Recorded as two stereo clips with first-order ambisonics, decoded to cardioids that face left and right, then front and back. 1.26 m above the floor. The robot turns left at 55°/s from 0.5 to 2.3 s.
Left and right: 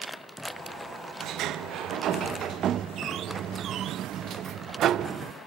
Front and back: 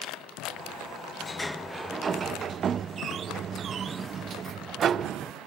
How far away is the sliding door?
About 0.6 m.